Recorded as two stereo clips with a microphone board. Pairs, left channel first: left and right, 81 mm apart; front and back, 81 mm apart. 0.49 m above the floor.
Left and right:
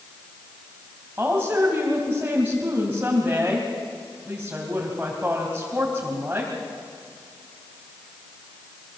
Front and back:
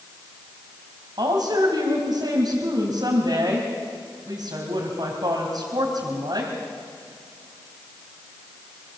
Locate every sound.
1.2 s a woman speaking: 160° right, 3 m